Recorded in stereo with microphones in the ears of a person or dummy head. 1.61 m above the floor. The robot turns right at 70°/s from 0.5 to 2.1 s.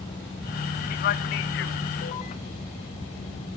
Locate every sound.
0.9 s a man speaking: 40° left (ahead or behind), 0.6 m; by 2.3 s 30° left (ahead or behind), 0.6 m